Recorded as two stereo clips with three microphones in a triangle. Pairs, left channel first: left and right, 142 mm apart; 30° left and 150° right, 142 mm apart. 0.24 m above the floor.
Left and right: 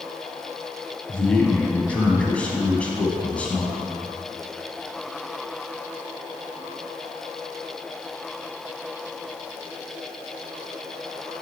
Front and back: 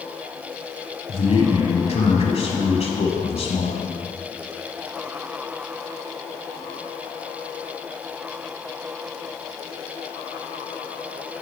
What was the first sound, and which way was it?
A man speaking, 10° left.